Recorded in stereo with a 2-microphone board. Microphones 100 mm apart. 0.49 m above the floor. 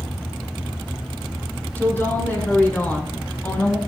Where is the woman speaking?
20° left (ahead or behind), 6 m; by 3.8 s 15° left (ahead or behind), 3.5 m.